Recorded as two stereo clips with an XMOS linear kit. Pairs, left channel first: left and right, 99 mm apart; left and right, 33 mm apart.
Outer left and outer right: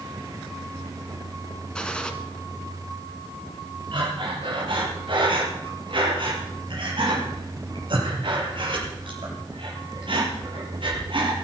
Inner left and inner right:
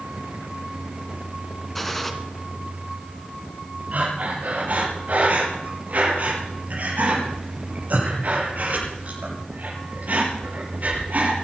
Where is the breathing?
55° right (ahead or behind), 5.5 m.